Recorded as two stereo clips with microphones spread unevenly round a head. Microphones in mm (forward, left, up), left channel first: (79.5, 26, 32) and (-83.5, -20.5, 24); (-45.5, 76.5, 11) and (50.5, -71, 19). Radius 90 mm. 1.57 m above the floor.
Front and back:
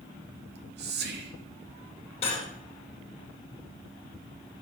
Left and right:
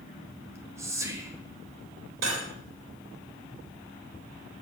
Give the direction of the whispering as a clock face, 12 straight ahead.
4 o'clock.